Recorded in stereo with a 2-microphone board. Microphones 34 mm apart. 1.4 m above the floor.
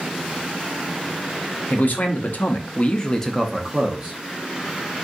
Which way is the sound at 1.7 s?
60° left (ahead or behind).